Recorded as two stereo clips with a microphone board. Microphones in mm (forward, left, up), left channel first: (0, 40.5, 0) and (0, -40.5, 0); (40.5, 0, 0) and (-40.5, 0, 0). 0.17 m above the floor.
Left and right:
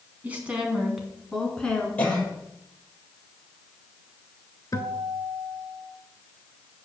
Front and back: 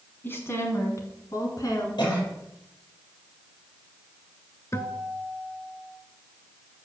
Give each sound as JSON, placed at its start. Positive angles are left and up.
{"t": 0.2, "sound": "a woman speaking", "azimuth_deg": -40, "distance_m": 1.8}
{"t": 2.0, "sound": "a cough", "azimuth_deg": 20, "distance_m": 5.0}
{"t": 4.7, "sound": "a guitar", "azimuth_deg": 50, "distance_m": 1.0}